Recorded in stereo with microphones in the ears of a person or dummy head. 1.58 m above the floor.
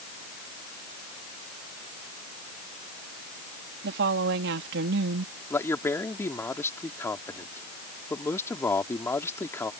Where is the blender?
I don't hear a blender.